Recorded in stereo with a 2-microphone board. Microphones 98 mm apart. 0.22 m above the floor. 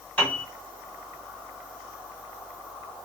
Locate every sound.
0.2 s a piano: 15° left (ahead or behind), 2.0 m